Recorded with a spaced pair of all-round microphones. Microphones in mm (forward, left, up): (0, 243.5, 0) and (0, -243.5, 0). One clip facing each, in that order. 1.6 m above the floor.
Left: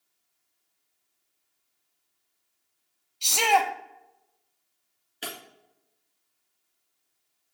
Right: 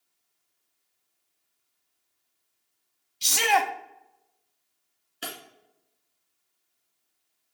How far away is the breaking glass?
About 1.8 m.